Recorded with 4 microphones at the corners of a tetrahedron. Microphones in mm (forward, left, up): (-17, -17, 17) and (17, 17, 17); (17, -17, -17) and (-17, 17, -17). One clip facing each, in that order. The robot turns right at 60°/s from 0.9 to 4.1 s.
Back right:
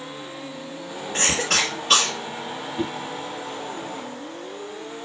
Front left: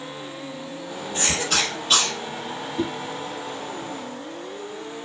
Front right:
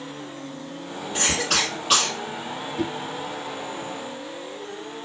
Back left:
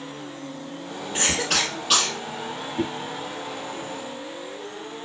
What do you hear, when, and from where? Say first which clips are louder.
1.1 s a cough: back right 2 dB, even; 145° right, 3 m; by 2.1 s 85° right, 3 m
2.8 s a whoosh: front left 1 dB, back left 1 dB; 175° left, 1.1 m; by 2.9 s straight behind, 1.1 m